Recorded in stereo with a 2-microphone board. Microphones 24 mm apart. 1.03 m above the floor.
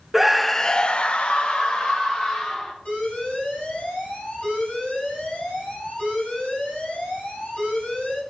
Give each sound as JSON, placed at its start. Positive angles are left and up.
{"t": 0.1, "sound": "a scream", "side_deg": -10, "distance_m": 0.6}
{"t": 2.9, "sound": "an alarm", "side_deg": 75, "distance_m": 6.5}